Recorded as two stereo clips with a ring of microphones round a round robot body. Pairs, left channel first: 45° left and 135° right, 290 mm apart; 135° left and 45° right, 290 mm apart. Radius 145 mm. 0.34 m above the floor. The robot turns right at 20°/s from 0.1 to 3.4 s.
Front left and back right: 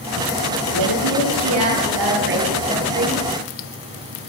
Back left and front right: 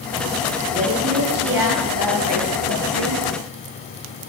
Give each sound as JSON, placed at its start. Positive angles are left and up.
{"t": 0.7, "sound": "a woman speaking", "azimuth_deg": -115, "distance_m": 8.5}